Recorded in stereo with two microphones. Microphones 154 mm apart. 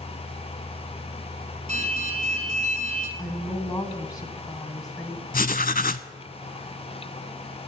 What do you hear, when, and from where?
1.7 s an alarm: 45° right (ahead or behind), 3.5 m
3.2 s a woman speaking: 25° left (ahead or behind), 1.6 m
5.3 s writing: 65° left (ahead or behind), 0.6 m